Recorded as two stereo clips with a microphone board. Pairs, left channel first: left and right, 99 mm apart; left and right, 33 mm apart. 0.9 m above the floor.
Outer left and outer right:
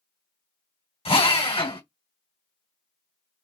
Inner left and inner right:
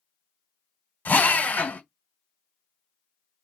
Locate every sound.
1.1 s a drill: 80° left, 2 m